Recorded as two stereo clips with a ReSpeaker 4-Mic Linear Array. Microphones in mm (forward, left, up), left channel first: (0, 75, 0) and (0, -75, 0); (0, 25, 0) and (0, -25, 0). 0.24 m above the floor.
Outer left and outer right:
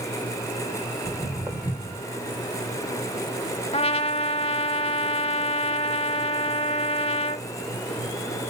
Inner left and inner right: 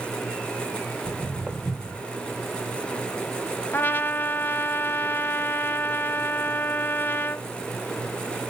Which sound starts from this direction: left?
A trumpet, at 3.7 s.